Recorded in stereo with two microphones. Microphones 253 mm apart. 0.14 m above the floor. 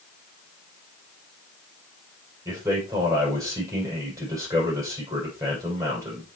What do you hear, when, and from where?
2.5 s a man speaking: 15° right (ahead or behind), 6 m